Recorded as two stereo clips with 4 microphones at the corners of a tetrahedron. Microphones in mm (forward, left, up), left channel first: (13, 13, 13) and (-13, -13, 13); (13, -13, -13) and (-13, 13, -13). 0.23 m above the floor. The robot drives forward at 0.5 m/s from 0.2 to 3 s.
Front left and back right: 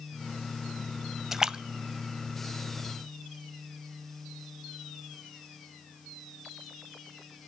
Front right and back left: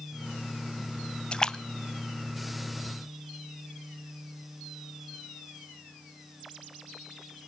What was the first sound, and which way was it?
A splash, 70° right.